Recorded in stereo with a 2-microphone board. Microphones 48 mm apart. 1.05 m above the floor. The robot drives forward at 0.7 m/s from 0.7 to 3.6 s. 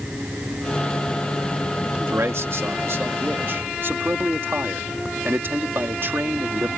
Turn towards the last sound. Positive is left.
turn(degrees=-60)  # may be behind; listen again after turning